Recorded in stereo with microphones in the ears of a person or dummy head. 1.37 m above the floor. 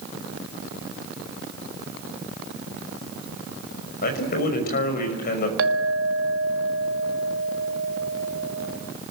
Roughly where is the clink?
Right.